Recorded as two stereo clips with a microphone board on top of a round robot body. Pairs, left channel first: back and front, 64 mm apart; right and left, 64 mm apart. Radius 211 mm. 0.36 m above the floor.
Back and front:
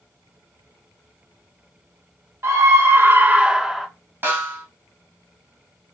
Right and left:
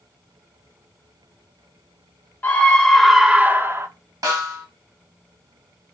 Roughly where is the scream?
Ahead right.